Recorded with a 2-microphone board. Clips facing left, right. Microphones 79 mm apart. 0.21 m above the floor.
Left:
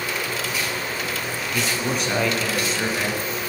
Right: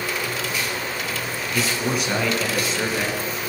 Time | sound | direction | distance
1.5 | a man speaking | 5° right (ahead or behind) | 2 m